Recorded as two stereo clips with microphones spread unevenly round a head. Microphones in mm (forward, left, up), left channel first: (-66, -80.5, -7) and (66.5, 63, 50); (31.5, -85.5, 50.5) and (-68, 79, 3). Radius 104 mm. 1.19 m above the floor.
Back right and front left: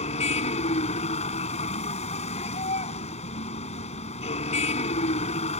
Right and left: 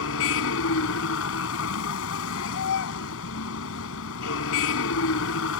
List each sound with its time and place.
0.0 s a vehicle: 70° right